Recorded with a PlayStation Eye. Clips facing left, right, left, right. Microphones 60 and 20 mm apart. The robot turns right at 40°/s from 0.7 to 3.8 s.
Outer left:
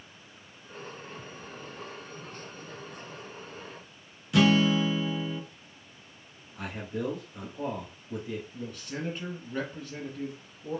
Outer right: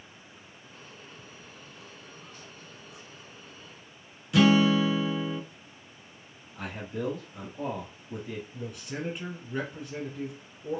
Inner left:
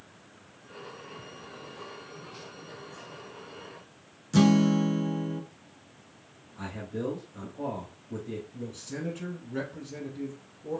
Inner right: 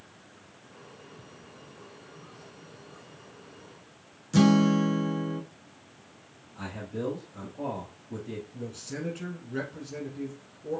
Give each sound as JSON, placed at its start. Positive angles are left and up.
{"t": 4.3, "sound": "a guitar", "side_deg": 0, "distance_m": 0.6}
{"t": 6.5, "sound": "a man speaking", "side_deg": 0, "distance_m": 1.4}
{"t": 8.5, "sound": "a man speaking", "side_deg": -10, "distance_m": 2.5}